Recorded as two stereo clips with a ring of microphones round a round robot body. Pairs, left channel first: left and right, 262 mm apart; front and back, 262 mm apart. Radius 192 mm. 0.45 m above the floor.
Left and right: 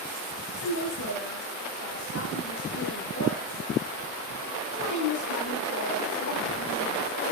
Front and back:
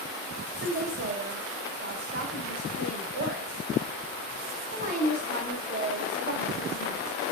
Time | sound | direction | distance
0.5 | a woman speaking | 130° left | 4 m